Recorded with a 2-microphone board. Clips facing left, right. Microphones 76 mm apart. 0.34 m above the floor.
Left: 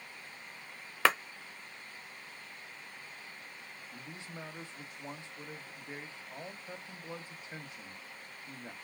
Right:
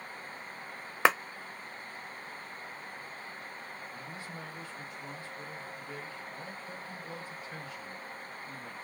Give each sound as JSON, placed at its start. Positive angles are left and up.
{"t": 1.1, "sound": "a clap", "side_deg": -20, "distance_m": 0.7}
{"t": 3.9, "sound": "a man speaking", "side_deg": 20, "distance_m": 1.1}